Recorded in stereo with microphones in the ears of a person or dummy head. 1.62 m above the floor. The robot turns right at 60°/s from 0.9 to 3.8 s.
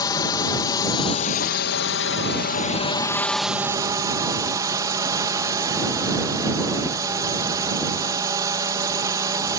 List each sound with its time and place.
0.0 s a drone: 25° left; by 9.6 s 160° right